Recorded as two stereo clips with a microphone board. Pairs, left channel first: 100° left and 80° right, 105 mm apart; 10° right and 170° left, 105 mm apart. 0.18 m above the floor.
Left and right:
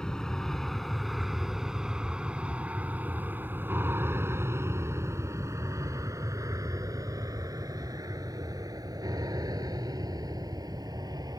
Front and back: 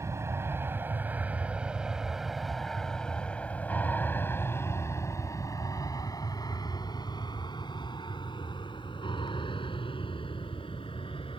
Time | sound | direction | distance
0.0 | an aircraft | 175° left | ?